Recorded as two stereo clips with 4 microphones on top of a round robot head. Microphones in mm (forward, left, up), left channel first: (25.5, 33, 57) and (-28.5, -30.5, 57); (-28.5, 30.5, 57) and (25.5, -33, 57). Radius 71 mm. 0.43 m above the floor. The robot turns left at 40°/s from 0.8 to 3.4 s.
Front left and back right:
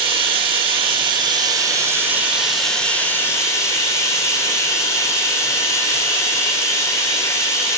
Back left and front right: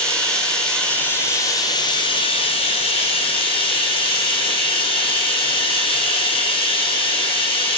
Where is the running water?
150° right, 1.5 m; by 7.8 s 105° left, 1.5 m.